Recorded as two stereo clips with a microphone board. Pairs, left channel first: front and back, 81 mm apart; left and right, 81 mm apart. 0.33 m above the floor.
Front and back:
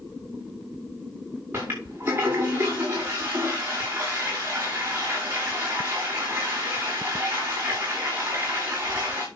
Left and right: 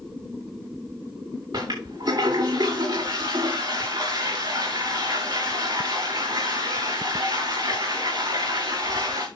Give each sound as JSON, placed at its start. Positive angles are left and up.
{"t": 1.5, "sound": "a toilet flushing", "azimuth_deg": -115, "distance_m": 6.0}